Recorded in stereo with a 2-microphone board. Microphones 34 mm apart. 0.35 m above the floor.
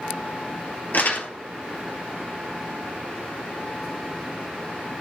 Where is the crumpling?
55° left (ahead or behind), 1.9 m.